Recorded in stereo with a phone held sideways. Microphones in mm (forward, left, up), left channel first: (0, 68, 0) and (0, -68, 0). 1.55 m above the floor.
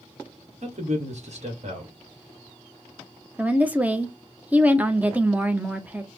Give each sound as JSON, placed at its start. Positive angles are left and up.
{"t": 0.6, "sound": "a man speaking", "side_deg": -55, "distance_m": 1.4}
{"t": 3.4, "sound": "a woman speaking", "side_deg": -10, "distance_m": 0.6}